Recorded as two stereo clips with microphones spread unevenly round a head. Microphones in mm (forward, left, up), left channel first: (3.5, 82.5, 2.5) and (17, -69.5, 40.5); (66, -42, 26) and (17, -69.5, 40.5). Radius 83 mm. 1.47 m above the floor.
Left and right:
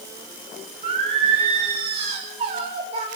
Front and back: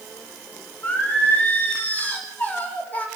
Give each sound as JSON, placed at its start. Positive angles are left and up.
{"t": 0.8, "sound": "singing", "azimuth_deg": -30, "distance_m": 5.5}